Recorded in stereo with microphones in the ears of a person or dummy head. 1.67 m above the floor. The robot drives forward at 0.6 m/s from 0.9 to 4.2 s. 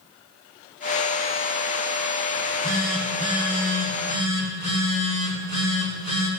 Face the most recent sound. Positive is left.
turn(degrees=35)  # may be behind; listen again after turning